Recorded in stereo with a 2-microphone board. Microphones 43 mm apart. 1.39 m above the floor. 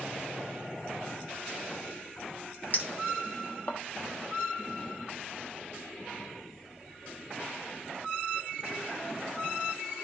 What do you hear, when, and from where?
2.7 s a clink: 45° left (ahead or behind), 1.3 m